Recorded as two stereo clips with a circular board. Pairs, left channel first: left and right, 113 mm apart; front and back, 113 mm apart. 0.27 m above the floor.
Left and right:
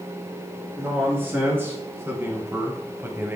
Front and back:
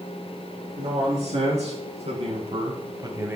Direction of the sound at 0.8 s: 160° right.